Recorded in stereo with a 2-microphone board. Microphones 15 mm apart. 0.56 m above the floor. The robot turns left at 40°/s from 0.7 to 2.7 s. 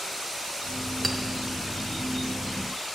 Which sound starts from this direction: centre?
A clink, at 1.0 s.